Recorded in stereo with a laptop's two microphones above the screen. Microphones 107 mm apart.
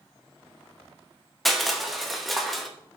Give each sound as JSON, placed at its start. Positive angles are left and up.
{"t": 1.4, "sound": "crushing", "side_deg": 0, "distance_m": 0.8}